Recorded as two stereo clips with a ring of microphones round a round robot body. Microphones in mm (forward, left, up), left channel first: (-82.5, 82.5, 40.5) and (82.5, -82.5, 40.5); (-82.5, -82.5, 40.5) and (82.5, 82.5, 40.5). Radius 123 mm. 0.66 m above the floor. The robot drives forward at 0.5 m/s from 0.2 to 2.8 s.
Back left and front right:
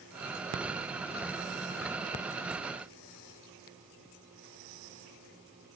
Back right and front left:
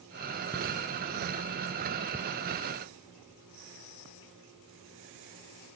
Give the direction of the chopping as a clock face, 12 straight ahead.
I don't hear chopping.